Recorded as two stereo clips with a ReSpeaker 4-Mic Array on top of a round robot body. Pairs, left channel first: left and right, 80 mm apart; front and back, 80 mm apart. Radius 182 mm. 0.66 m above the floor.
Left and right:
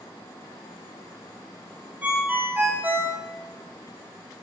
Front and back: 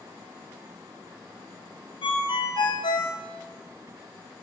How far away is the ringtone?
About 2 m.